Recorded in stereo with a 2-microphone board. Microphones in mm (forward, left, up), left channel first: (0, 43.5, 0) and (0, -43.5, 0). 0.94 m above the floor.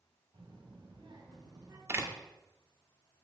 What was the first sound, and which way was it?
A child speaking, 70° right (ahead or behind).